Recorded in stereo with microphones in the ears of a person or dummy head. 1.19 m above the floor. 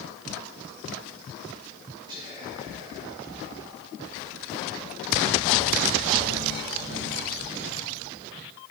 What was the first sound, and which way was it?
Whispering, 25° right (ahead or behind).